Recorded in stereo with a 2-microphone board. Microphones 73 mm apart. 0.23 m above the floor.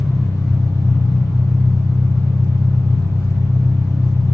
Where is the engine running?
50° left (ahead or behind), 2 m.